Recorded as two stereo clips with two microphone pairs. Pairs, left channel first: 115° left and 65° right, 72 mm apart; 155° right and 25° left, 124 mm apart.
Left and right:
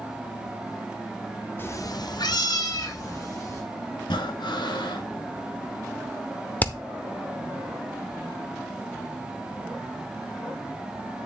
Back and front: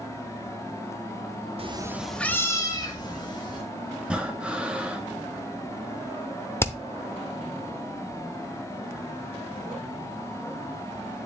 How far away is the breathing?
About 1.4 m.